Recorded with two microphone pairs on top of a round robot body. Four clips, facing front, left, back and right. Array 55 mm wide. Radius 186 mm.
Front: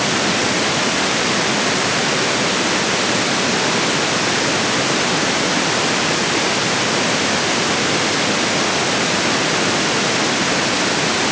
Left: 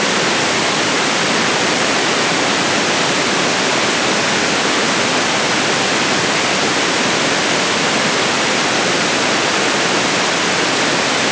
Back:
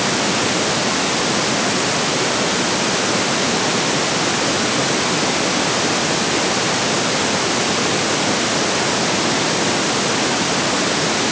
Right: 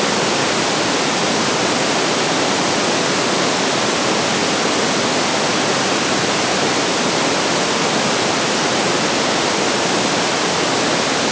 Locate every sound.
Only background noise.